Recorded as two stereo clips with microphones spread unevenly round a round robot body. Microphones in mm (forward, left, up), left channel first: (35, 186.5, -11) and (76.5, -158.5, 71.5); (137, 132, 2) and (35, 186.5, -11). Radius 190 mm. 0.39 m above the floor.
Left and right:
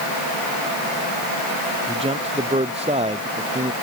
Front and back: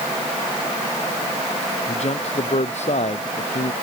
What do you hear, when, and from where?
1.9 s a man speaking: 10° right